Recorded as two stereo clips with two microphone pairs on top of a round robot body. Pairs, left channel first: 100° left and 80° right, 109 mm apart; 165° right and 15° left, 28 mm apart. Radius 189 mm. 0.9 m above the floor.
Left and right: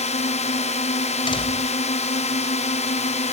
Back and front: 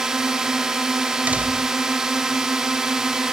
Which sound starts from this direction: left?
A drone, at 0.0 s.